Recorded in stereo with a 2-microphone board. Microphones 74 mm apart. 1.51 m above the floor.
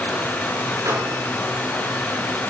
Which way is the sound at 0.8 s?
45° right (ahead or behind).